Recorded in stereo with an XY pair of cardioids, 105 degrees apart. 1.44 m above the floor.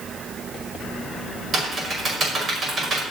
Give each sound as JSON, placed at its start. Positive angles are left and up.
{"t": 1.5, "sound": "typing on a keyboard", "azimuth_deg": -45, "distance_m": 5.0}